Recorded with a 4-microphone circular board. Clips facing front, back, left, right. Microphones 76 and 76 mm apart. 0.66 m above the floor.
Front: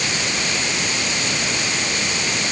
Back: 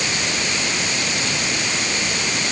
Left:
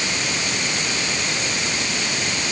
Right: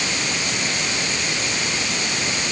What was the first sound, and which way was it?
Only background noise.